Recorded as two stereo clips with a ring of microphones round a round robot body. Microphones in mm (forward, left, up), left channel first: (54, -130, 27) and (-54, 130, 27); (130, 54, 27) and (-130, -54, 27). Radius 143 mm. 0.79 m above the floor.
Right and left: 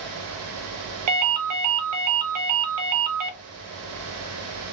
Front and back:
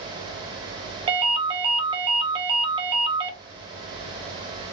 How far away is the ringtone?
About 0.6 m.